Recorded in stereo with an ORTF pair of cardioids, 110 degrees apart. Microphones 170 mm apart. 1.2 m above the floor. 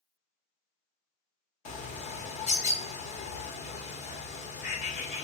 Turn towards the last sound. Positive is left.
turn(degrees=45)